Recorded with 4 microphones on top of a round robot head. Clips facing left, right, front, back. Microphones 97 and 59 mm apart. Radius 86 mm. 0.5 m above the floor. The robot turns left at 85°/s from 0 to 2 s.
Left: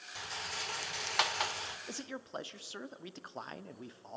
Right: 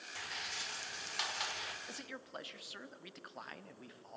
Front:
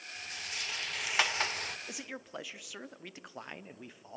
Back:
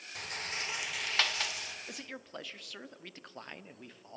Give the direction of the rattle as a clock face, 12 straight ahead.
7 o'clock.